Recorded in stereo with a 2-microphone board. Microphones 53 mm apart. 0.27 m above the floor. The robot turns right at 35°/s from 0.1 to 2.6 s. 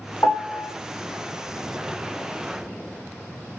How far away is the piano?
About 1.1 m.